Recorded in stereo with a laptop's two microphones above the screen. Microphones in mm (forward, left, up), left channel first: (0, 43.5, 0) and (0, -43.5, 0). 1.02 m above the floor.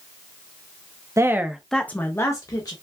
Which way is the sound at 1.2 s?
35° right (ahead or behind).